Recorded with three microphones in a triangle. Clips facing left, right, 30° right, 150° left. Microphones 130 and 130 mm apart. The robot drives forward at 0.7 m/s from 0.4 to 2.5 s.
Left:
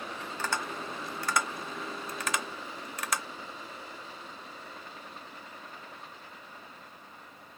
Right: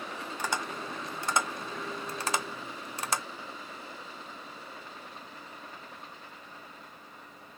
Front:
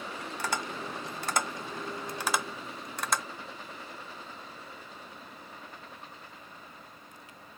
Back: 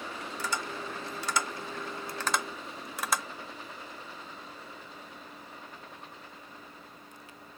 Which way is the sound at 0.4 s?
15° right.